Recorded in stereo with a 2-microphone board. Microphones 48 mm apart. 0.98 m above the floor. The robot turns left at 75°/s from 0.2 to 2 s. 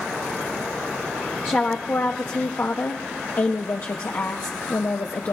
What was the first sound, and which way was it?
A woman speaking, 150° left.